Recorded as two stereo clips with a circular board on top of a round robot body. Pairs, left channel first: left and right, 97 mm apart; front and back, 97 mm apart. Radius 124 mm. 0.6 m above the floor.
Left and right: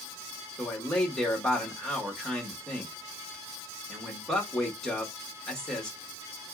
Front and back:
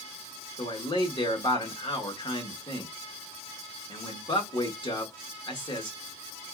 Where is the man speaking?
10° left, 1.8 m.